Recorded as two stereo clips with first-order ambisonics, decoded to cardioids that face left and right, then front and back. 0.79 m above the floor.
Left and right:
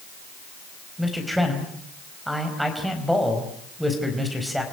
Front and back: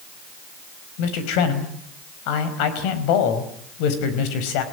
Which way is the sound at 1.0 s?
Straight ahead.